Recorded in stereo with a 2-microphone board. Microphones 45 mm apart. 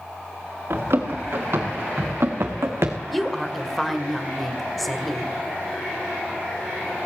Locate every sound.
0.7 s running footsteps: 60° right (ahead or behind), 5 m; by 3.0 s 65° right (ahead or behind), 2.0 m
3.1 s a woman speaking: 5° left (ahead or behind), 2.0 m